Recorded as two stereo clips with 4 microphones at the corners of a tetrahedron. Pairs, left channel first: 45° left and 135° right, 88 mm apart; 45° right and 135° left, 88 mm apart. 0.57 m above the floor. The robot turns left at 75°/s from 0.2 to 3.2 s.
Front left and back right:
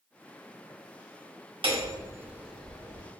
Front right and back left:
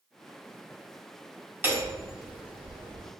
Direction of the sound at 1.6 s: 160° right.